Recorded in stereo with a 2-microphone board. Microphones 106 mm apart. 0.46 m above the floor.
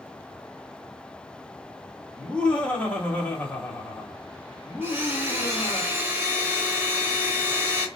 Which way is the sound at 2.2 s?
10° left (ahead or behind).